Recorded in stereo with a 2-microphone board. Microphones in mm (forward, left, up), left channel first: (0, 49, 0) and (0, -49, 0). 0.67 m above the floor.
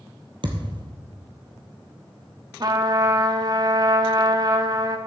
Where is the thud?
55° right (ahead or behind), 1.7 m.